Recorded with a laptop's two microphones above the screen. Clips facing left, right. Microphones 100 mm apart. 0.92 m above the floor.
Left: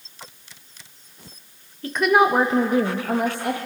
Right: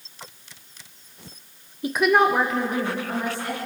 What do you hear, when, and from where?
1.8 s a woman speaking: 20° right (ahead or behind), 0.7 m; by 3.6 s 65° left (ahead or behind), 1.4 m